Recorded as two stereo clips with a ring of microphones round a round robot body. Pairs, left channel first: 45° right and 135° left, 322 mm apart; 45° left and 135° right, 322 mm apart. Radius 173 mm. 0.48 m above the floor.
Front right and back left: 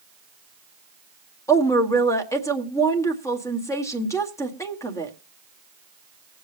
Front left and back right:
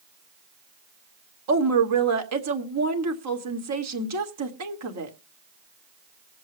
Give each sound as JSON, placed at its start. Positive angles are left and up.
{"t": 1.5, "sound": "a woman speaking", "azimuth_deg": -125, "distance_m": 1.7}